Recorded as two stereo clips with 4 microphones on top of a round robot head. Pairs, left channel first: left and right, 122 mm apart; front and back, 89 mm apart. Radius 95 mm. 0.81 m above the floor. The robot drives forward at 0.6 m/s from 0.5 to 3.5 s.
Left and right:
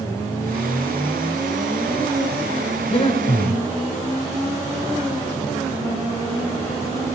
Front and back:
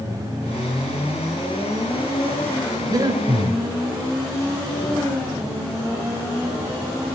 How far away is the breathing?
About 3.5 m.